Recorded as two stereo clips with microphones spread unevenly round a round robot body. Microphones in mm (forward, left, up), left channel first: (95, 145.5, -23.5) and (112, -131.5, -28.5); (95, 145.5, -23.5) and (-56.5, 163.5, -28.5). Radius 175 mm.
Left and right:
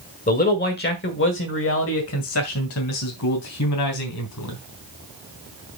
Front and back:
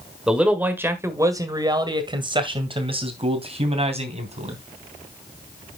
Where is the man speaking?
100° left, 1.4 m; by 4.6 s 135° left, 3 m.